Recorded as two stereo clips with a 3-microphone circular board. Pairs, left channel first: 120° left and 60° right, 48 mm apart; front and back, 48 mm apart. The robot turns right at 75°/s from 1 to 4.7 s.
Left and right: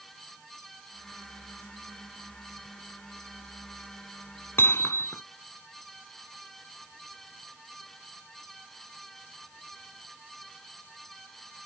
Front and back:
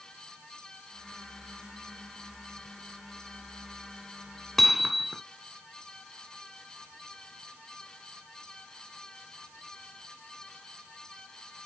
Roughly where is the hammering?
Left.